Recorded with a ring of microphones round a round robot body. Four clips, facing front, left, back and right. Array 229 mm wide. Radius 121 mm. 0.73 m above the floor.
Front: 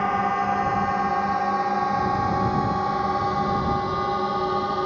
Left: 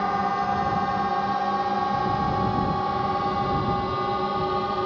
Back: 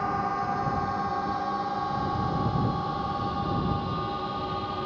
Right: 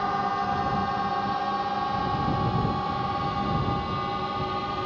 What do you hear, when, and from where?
0.0 s a drone: 35° left; by 4.9 s 40° left